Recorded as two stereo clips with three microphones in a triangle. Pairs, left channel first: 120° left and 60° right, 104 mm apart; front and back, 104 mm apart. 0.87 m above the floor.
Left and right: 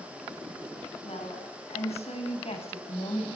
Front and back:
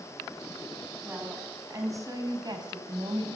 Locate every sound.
1.1 s a woman speaking: 110° left, 6 m; by 3.4 s 145° left, 5 m